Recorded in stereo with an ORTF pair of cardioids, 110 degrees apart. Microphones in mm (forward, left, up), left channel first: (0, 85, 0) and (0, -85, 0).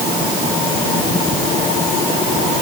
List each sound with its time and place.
Only background noise.